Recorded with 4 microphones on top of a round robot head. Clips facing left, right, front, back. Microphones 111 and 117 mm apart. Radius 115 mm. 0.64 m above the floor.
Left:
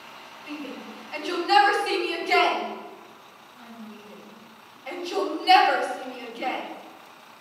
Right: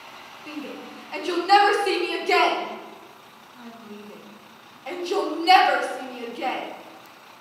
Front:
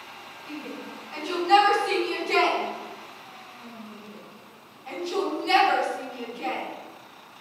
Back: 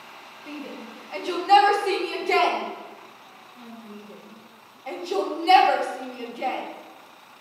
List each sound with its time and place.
0.5 s a shout: 140° right, 2.0 m